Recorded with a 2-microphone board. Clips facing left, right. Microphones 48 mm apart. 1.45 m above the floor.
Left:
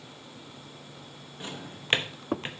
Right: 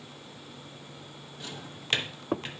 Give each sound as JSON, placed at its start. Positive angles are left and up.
{"t": 1.4, "sound": "a drawer", "side_deg": 25, "distance_m": 1.0}